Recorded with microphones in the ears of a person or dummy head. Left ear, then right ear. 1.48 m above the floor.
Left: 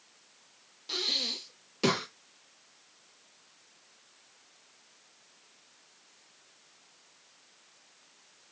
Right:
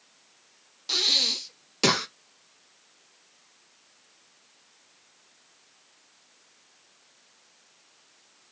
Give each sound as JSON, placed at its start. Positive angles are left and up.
{"t": 0.9, "sound": "breathing", "side_deg": -20, "distance_m": 0.5}